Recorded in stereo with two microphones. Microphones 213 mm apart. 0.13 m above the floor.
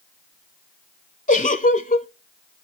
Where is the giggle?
35° left (ahead or behind), 0.6 m.